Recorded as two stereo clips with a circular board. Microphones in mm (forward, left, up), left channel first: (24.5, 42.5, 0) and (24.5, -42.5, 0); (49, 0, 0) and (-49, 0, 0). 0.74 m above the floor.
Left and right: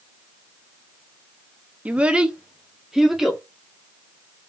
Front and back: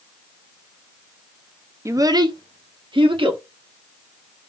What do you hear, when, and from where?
1.9 s a child speaking: 150° right, 0.5 m; by 3.4 s 175° right, 1.4 m